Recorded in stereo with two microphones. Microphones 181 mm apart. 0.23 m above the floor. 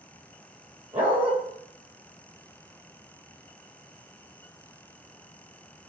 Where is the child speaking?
I don't hear a child speaking.